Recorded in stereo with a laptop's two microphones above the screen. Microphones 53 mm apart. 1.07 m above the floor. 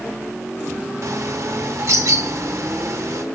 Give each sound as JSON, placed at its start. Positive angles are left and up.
{"t": 1.0, "sound": "a bird", "side_deg": -65, "distance_m": 1.3}